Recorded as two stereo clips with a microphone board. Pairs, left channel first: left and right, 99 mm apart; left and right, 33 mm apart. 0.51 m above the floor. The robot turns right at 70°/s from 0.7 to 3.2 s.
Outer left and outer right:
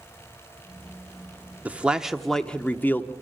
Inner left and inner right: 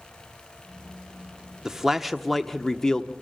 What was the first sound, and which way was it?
A man speaking, 15° right (ahead or behind).